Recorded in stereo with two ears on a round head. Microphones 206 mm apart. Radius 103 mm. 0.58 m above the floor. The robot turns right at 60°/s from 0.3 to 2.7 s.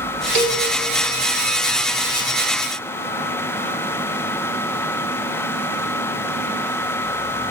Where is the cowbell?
75° right (ahead or behind), 2.5 m; by 0.6 s 80° right, 2.5 m.